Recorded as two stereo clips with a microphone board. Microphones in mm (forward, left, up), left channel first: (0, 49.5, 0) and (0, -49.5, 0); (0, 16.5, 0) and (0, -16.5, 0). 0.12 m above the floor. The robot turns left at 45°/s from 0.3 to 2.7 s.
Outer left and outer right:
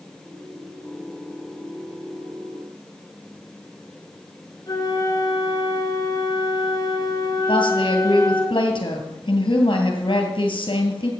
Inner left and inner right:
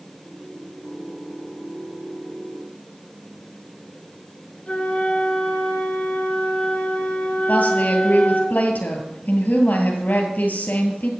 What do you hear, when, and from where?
4.7 s a flute: 35° left (ahead or behind), 1.6 m
7.5 s a woman speaking: 60° left (ahead or behind), 2 m